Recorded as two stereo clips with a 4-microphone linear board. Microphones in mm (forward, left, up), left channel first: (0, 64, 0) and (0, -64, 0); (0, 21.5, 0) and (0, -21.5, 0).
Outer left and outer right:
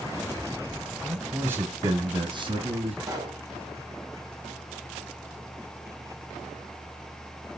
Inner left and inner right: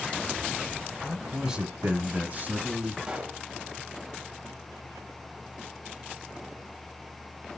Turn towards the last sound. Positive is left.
turn(degrees=-25)  # may be behind; listen again after turning